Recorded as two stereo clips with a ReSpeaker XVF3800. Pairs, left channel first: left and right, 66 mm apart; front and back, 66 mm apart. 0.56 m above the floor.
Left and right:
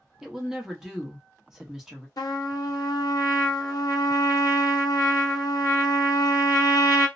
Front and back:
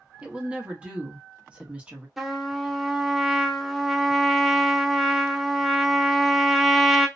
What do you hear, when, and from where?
0.2 s a woman speaking: 155° right, 0.8 m
2.2 s a trumpet: 90° left, 0.6 m